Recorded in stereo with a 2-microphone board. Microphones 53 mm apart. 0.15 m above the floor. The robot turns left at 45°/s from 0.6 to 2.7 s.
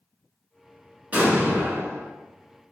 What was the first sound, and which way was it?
An explosion, 30° right.